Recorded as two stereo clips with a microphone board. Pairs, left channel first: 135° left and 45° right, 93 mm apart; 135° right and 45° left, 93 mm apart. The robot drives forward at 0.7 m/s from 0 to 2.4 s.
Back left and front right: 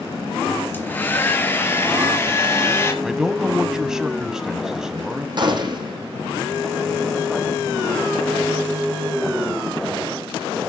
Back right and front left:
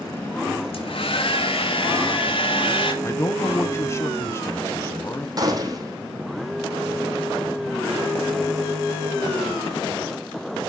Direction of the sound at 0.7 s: 155° right.